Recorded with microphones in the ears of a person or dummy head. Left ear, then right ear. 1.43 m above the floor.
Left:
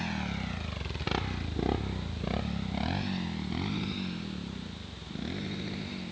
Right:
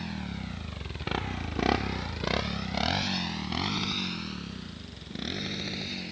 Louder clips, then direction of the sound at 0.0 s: Left 3 dB; 25° left (ahead or behind).